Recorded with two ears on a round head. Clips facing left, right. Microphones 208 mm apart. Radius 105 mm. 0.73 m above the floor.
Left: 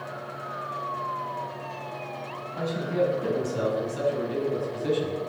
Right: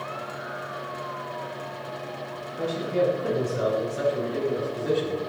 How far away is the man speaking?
About 7 m.